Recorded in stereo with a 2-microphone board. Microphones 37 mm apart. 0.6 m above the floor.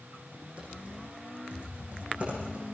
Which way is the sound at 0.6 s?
35° right (ahead or behind).